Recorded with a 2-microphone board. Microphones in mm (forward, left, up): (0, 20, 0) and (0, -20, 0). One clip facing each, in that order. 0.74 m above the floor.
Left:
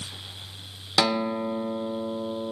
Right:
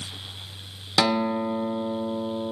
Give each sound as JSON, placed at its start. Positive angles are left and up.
{"t": 1.0, "sound": "a guitar", "side_deg": -5, "distance_m": 1.7}